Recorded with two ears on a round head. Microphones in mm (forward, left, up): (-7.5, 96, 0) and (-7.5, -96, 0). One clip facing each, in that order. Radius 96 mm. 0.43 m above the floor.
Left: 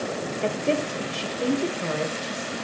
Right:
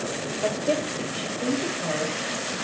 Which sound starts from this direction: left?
A woman speaking, at 0.4 s.